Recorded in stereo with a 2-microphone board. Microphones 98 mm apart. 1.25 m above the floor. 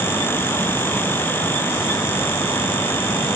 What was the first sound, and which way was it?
Only background noise.